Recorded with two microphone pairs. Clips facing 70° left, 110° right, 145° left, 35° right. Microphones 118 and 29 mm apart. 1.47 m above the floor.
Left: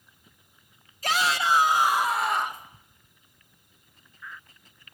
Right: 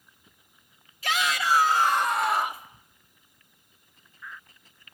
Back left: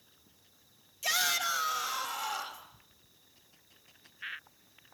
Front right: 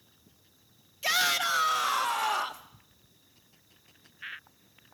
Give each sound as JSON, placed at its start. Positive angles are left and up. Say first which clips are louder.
{"t": 1.0, "sound": "a shout", "louder": "left 2 dB, front right 4 dB", "azimuth_deg": 20, "distance_m": 1.7}